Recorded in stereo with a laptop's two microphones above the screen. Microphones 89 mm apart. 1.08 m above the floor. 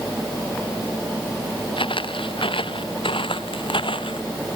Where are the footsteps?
75° left (ahead or behind).